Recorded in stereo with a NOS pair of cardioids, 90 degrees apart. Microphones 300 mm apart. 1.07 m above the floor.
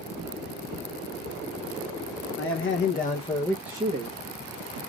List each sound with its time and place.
2.4 s a man speaking: 50° left, 1.3 m; by 4.8 s 55° right, 1.3 m